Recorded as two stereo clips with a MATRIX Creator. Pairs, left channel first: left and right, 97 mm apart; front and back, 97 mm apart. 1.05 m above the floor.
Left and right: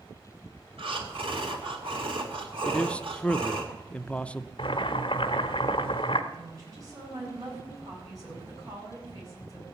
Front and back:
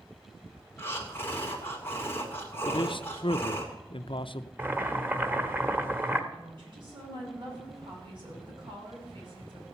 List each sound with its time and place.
0.8 s breathing: 65° right, 2.5 m
2.6 s a man speaking: 15° left, 0.5 m
4.6 s boiling: 115° left, 1.2 m
6.3 s a woman speaking: 145° right, 7 m